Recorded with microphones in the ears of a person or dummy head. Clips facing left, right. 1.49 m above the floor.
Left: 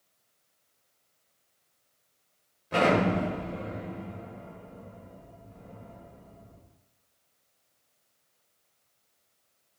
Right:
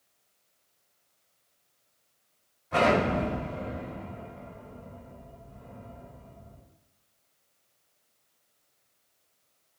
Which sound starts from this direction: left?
An explosion, at 2.7 s.